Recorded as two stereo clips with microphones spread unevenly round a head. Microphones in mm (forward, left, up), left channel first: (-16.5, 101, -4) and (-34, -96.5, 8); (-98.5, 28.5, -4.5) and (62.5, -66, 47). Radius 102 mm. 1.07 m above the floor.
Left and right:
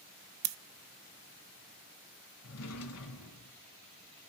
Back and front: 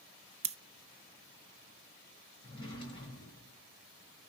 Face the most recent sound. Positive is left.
turn(degrees=75)